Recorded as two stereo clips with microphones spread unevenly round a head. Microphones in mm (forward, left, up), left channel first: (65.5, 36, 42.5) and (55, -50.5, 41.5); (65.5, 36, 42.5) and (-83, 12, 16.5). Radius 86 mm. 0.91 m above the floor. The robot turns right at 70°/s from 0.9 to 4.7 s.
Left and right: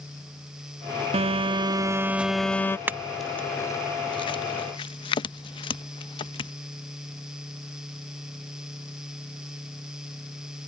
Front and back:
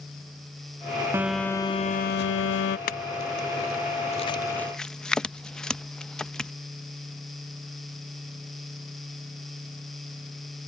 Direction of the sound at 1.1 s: 95° right.